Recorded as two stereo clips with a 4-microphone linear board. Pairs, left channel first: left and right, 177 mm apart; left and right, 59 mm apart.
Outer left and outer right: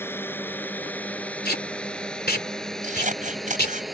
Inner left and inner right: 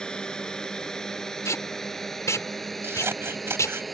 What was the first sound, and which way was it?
A drone, 10° left (ahead or behind).